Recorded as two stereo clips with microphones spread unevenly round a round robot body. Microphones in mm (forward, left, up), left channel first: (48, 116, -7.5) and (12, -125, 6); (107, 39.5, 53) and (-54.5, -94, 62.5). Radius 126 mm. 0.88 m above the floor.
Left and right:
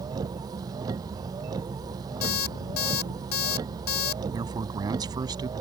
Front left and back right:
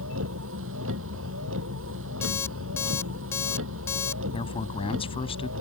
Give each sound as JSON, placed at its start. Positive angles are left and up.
{"t": 0.0, "sound": "a vehicle", "azimuth_deg": -175}
{"t": 2.2, "sound": "an alarm clock", "azimuth_deg": 120}
{"t": 4.3, "sound": "a man speaking", "azimuth_deg": -25}